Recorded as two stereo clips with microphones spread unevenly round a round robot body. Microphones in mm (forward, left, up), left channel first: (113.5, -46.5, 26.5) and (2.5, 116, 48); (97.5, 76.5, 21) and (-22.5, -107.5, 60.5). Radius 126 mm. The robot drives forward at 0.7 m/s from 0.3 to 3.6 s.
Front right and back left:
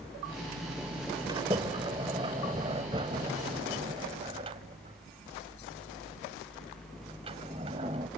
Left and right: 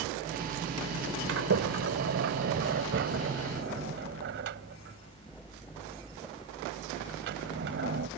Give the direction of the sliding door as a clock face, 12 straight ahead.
5 o'clock.